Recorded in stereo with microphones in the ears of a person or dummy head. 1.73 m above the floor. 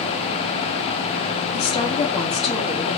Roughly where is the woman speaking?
Left.